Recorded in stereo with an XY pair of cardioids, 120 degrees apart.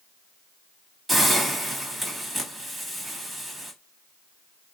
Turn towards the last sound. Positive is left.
turn(degrees=-5)